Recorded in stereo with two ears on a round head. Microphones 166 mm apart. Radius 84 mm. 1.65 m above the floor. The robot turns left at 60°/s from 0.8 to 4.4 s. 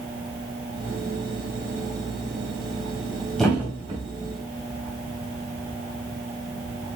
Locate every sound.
3.4 s a thud: 5° left (ahead or behind), 4 m; by 4.0 s 35° right (ahead or behind), 4 m